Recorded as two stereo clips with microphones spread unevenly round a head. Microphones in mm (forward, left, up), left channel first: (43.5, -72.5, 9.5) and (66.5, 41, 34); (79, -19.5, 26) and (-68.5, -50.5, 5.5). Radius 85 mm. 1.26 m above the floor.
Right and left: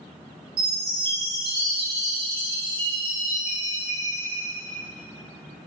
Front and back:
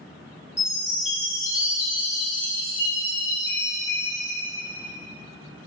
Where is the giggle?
I don't hear a giggle.